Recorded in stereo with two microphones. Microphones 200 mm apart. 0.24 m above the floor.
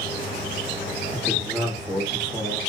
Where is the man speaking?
5° left (ahead or behind), 1.6 m.